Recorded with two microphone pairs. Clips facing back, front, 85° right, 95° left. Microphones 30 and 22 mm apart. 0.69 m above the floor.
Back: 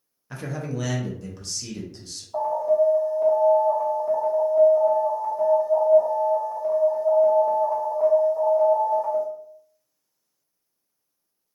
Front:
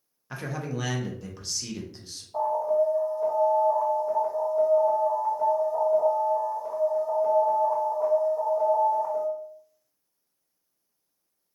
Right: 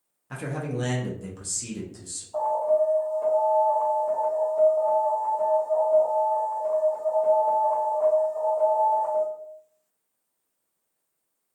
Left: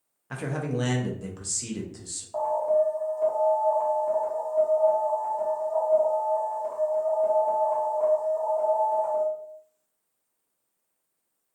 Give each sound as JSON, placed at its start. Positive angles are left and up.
{"t": 0.3, "sound": "a man speaking", "azimuth_deg": 75, "distance_m": 0.5}
{"t": 2.3, "sound": "an alarm", "azimuth_deg": 165, "distance_m": 1.1}